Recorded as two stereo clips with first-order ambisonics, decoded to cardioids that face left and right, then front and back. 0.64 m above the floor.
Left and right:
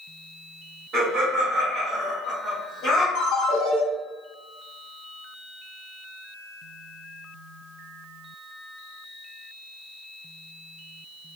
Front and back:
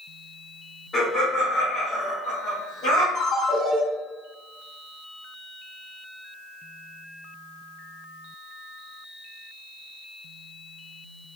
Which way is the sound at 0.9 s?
60° right.